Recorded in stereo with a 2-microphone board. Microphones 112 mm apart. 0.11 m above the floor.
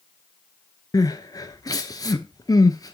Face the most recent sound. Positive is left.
turn(degrees=35)  # may be behind; listen again after turning